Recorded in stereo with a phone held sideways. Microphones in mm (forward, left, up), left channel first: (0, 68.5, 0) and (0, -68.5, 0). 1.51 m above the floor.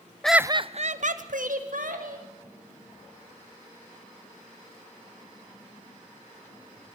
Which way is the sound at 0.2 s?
5° left (ahead or behind).